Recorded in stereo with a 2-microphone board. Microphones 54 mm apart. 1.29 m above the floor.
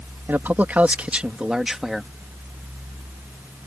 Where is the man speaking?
45° right (ahead or behind); by 2.1 s centre (ahead or behind).